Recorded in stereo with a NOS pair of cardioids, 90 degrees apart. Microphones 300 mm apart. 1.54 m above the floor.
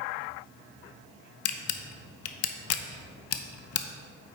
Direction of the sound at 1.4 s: 60° left.